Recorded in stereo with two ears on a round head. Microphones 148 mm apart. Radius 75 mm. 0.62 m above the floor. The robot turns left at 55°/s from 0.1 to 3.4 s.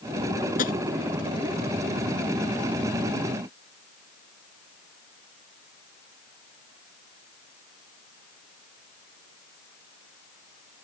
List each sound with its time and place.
0.6 s tapping: 55° left (ahead or behind); by 0.7 s 60° left (ahead or behind)